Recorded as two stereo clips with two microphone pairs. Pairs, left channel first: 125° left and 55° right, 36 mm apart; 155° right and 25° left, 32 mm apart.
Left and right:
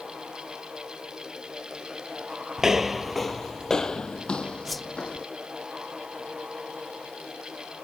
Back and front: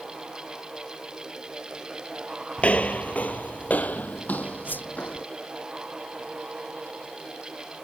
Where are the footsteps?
125° right; by 5.2 s straight behind.